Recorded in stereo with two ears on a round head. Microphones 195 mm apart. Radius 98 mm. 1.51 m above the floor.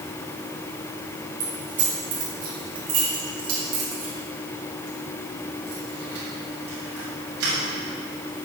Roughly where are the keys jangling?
Right.